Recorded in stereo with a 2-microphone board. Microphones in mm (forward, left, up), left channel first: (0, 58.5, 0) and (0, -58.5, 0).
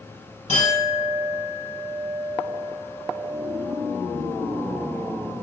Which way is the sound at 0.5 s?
80° left.